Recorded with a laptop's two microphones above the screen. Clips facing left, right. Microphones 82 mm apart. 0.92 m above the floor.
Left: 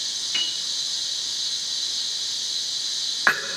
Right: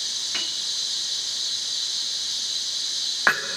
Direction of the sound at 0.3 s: 30° right (ahead or behind).